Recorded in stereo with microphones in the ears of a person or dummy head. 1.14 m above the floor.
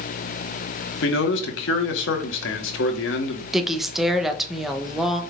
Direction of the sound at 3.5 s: Centre (ahead or behind).